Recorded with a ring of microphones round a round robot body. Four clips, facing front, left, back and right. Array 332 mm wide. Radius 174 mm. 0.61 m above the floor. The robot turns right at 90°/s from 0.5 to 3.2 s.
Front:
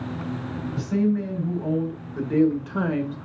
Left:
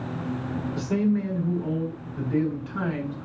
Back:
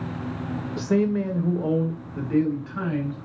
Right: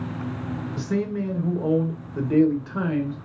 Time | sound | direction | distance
0.8 | a man speaking | 150° left | 2.5 m